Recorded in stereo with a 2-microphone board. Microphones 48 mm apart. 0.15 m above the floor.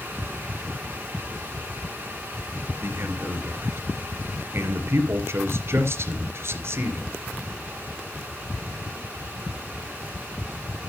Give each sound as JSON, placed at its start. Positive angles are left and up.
{"t": 2.8, "sound": "a man speaking", "side_deg": -60, "distance_m": 3.0}